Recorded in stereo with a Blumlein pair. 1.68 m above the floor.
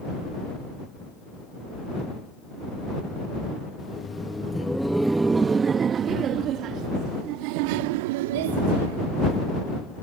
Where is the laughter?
15° left; by 9.5 s 55° right.